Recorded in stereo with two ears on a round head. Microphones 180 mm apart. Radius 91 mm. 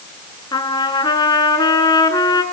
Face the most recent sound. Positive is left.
turn(degrees=20)  # may be behind; listen again after turning